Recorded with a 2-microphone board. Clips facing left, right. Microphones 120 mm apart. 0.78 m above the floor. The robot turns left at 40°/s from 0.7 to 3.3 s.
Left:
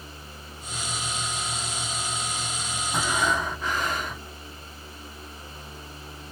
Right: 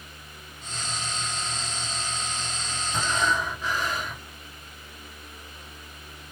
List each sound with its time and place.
2.9 s breathing: 60° left (ahead or behind), 2 m; by 4.3 s 50° left (ahead or behind), 2 m